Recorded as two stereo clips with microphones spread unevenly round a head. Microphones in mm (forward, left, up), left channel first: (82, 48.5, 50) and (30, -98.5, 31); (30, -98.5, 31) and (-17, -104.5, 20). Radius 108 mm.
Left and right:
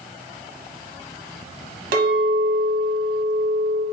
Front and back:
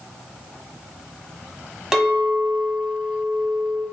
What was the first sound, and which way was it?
A clink, 90° right.